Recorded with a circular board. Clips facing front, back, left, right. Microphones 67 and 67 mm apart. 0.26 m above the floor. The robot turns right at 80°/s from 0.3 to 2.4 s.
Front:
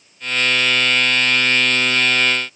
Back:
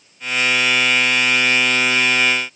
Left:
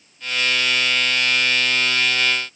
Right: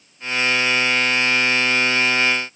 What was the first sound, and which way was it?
Only background noise.